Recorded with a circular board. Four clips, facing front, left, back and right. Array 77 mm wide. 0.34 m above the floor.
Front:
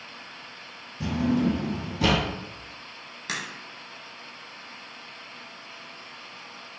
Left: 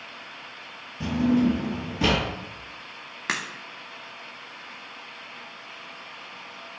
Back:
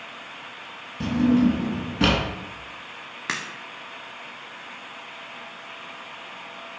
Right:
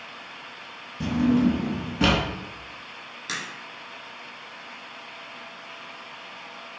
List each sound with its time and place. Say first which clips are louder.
1.0 s a drawer: right 1 dB, back 5 dB; 155° right, 1.1 m
3.3 s a crack: left 4 dB, back 3 dB; 130° left, 0.6 m